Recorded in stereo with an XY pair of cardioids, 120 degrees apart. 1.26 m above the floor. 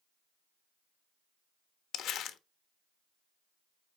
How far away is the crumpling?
About 1.2 m.